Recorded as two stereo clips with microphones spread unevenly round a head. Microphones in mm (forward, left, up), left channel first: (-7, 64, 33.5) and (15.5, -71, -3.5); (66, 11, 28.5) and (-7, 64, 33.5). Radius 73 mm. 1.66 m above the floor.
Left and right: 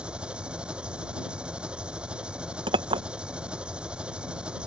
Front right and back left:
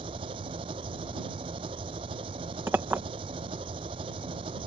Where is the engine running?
165° right.